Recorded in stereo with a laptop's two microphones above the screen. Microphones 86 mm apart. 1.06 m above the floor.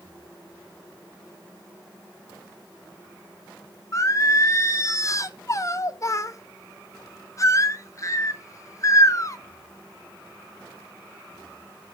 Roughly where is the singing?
Left.